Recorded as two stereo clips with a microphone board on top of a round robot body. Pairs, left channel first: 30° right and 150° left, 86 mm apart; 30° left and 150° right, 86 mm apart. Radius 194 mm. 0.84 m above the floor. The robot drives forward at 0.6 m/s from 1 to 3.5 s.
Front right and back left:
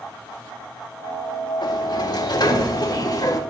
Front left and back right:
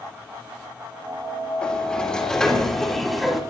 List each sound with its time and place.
1.6 s a sliding door: 45° right, 4 m; by 3.4 s 60° right, 3 m